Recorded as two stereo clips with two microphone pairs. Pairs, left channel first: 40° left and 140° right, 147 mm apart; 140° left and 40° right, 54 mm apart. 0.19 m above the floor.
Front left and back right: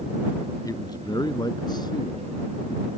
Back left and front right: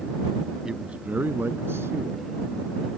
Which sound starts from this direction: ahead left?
A man speaking, at 0.7 s.